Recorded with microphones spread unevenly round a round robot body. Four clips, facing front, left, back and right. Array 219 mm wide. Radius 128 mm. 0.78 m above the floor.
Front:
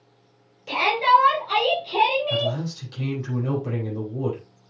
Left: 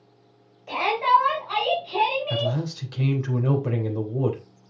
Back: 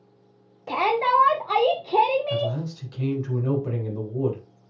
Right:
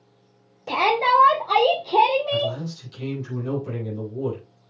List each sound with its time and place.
0.7 s a shout: 125° right, 2.5 m; by 2.6 s 155° right, 2.5 m
2.3 s a man speaking: 90° left, 3.5 m